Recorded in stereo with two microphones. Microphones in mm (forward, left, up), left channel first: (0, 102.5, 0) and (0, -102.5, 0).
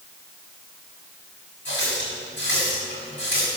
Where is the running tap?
60° left (ahead or behind), 7 m.